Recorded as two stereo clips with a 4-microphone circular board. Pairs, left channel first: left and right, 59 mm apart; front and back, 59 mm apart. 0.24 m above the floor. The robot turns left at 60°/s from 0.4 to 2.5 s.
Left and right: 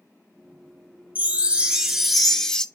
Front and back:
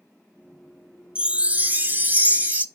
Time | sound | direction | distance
1.1 | a chime | 120° right | 0.8 m